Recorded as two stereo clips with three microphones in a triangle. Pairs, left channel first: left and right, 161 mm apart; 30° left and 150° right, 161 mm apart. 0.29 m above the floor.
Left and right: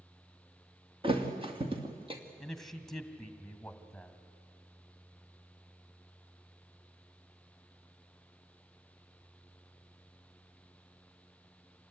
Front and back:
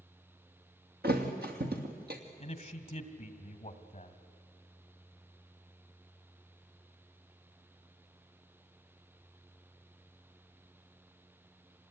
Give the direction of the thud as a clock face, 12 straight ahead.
5 o'clock.